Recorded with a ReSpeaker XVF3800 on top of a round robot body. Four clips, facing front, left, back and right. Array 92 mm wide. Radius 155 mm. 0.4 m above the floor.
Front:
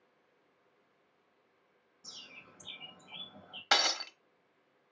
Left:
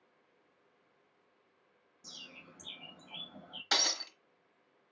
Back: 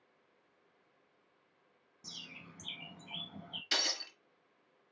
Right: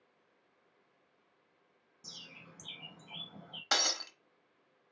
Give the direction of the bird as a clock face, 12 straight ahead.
5 o'clock.